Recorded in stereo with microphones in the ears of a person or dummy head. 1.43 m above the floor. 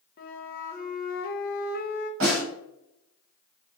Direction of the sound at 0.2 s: 45° left (ahead or behind).